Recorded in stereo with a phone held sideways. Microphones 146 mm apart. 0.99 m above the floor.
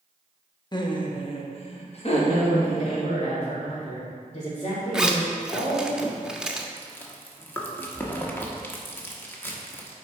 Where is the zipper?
5° right (ahead or behind), 0.6 m.